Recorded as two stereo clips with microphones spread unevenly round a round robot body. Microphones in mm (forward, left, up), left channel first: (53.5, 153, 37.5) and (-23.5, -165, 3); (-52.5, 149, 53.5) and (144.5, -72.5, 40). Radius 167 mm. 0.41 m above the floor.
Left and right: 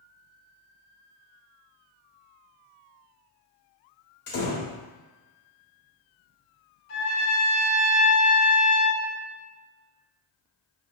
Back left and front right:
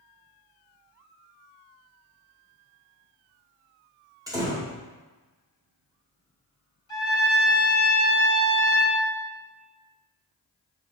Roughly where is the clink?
I don't hear a clink.